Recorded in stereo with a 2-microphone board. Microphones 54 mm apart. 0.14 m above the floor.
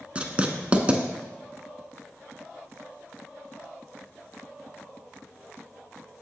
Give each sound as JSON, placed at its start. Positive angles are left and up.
{"t": 0.1, "sound": "writing", "side_deg": -20, "distance_m": 0.8}